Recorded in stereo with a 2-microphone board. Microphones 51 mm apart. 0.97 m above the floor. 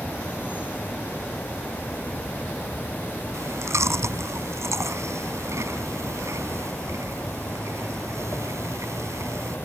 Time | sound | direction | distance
0.0 | an insect | 40° left (ahead or behind) | ?
3.3 | chewing | 70° right (ahead or behind) | ?